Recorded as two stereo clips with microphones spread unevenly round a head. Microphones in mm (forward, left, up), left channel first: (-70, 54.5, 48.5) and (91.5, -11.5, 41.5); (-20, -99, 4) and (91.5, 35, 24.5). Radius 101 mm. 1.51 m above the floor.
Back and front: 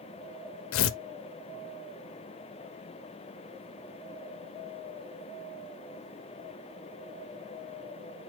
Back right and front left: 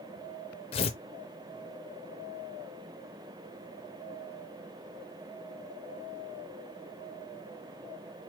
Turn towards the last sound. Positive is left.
turn(degrees=165)